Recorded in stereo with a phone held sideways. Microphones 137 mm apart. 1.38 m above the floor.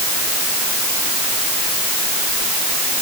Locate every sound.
Only background noise.